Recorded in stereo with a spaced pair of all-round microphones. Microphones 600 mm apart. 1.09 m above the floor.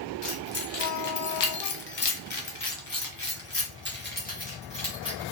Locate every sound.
0.2 s keys jangling: 55° left (ahead or behind), 1.0 m; by 5.2 s 5° left (ahead or behind), 1.9 m